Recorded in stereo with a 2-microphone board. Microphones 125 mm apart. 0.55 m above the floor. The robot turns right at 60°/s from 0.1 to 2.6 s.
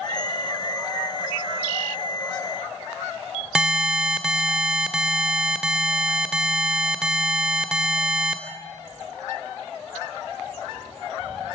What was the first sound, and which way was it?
An alarm, 5° right (ahead or behind).